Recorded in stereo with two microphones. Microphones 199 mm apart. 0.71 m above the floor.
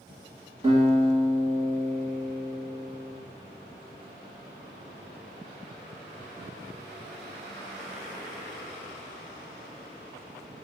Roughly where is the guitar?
Right.